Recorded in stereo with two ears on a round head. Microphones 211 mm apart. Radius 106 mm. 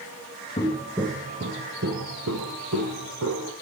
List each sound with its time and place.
0.6 s footsteps: 20° left (ahead or behind), 0.7 m; by 3.5 s 55° right (ahead or behind), 2.5 m